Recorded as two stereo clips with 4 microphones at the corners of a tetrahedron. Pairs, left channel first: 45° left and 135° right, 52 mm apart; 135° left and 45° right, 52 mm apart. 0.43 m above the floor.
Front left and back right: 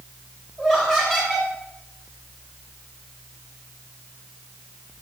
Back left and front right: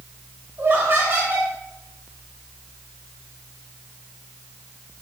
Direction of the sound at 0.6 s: 55° right.